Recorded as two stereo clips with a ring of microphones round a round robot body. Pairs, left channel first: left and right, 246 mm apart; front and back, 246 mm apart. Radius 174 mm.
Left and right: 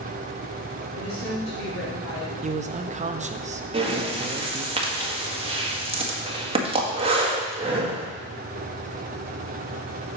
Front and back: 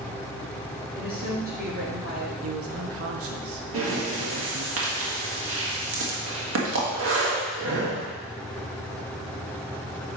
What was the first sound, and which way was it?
A woman speaking, 130° left.